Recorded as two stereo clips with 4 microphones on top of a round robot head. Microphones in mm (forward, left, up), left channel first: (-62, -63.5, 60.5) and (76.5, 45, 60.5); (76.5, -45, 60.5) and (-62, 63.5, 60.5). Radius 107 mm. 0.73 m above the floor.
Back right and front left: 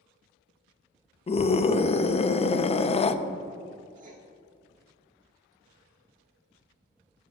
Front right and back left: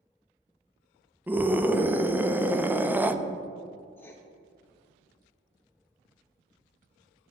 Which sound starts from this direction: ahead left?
Writing, at 4.0 s.